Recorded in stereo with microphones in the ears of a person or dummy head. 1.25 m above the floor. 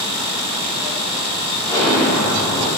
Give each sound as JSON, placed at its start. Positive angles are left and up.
{"t": 1.7, "sound": "an explosion", "side_deg": -10, "distance_m": 1.0}